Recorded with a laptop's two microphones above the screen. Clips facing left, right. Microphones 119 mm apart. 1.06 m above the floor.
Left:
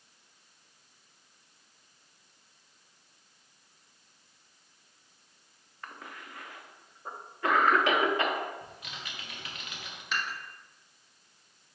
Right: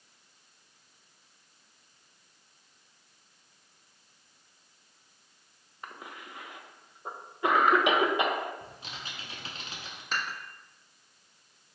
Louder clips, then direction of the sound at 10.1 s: Even; 40° right (ahead or behind).